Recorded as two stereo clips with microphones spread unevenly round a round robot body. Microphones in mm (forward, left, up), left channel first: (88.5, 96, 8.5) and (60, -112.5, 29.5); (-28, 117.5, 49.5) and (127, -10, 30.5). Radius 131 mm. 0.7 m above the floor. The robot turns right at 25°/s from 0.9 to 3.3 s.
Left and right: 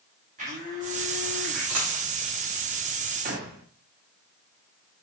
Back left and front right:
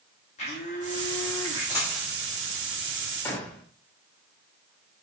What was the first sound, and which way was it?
A blender, 160° right.